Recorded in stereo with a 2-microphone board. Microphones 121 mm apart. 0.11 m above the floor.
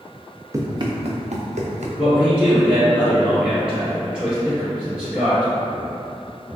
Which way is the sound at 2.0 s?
10° right (ahead or behind).